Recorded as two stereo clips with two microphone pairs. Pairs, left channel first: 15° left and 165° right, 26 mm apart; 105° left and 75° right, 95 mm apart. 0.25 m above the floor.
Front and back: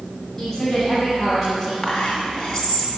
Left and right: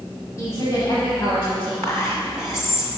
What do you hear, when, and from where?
0.4 s a woman speaking: 75° left, 1.1 m; by 1.7 s 115° left, 1.7 m
1.8 s whispering: 60° left, 1.5 m